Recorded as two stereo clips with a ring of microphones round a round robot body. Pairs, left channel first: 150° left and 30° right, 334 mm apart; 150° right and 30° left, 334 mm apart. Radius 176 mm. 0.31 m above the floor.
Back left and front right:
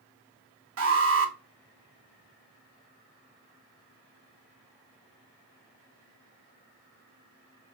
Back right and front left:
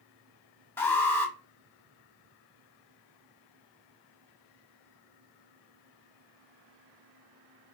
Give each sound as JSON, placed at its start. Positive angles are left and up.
{"t": 0.8, "sound": "an alarm", "azimuth_deg": -70, "distance_m": 1.4}